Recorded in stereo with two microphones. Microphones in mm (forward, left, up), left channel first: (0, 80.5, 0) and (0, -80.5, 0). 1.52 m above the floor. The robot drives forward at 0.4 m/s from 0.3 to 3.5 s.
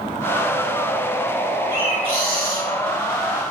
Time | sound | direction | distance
1.7 | a bird | 70° left (ahead or behind) | 3 m